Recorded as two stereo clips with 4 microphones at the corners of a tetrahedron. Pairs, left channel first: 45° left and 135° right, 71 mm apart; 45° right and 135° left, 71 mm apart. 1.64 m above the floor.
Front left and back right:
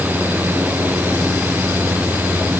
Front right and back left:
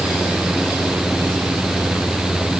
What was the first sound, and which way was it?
Only background noise.